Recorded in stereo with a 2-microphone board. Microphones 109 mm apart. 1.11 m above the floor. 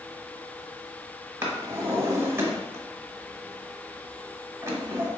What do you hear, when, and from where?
1.4 s a drawer: 25° right (ahead or behind), 1.0 m